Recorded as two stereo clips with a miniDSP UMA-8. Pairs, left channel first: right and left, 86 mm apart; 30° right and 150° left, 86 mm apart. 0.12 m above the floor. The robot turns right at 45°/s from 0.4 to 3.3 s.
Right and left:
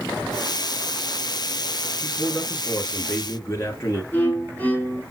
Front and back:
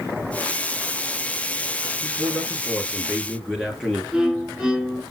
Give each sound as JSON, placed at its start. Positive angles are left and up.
{"t": 2.0, "sound": "a man speaking", "azimuth_deg": 175, "distance_m": 1.8}
{"t": 4.1, "sound": "a violin", "azimuth_deg": -135, "distance_m": 1.3}